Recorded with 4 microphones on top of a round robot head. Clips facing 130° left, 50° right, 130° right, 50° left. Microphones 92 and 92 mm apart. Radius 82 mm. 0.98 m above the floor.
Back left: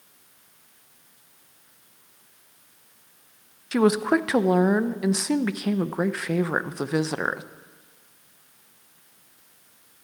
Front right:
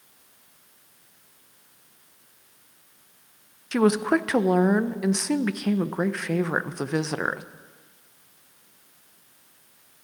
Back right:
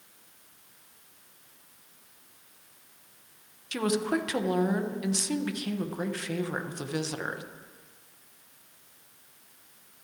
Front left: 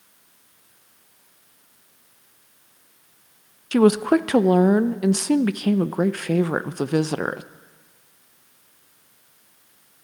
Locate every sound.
3.7 s a woman speaking: 45° left, 0.6 m